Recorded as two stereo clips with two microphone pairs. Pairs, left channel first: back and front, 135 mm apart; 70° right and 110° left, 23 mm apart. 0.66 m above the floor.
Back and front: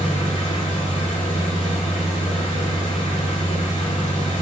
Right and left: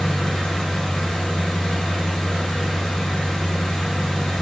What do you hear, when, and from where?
0.0 s an engine running: 135° right, 1.3 m